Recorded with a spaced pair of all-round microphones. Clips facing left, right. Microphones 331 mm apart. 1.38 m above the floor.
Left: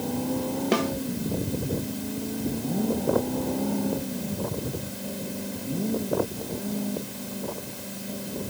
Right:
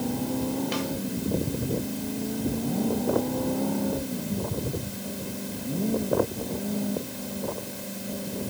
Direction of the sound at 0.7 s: 90° left.